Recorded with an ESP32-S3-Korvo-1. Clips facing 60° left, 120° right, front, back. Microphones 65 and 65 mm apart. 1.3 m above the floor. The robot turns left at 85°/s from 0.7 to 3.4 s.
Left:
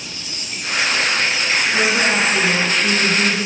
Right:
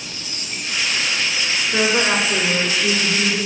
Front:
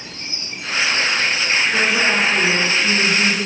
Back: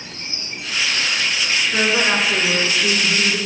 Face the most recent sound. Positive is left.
turn(degrees=120)